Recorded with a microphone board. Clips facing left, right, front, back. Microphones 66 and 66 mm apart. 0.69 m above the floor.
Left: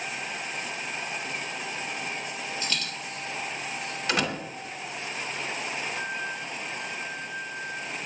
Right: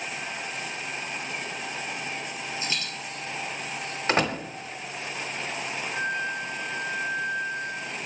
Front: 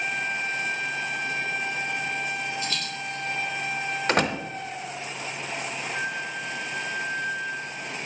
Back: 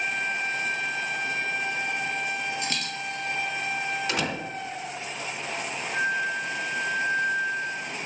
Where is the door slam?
40° right, 1.1 m.